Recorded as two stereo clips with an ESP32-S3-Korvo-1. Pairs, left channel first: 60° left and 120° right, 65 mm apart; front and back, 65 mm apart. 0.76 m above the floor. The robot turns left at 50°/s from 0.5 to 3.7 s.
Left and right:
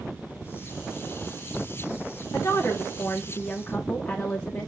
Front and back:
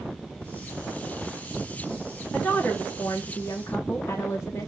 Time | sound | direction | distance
2.3 | a woman speaking | 60° left | 0.8 m